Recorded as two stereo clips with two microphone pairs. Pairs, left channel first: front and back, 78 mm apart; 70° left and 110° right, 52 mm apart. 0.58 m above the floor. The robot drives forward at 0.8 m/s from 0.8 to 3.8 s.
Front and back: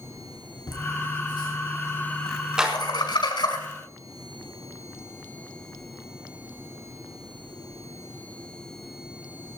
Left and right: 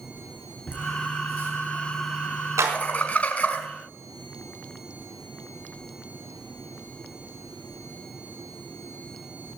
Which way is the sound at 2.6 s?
100° right.